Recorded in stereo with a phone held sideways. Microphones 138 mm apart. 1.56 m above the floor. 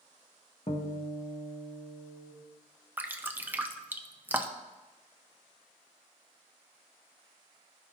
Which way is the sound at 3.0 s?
15° right (ahead or behind).